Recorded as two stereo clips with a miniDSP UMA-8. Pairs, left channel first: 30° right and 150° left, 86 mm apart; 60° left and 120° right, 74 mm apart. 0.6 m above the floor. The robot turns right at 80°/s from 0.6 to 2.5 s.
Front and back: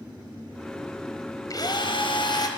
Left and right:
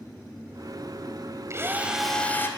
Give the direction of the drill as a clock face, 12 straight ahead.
2 o'clock.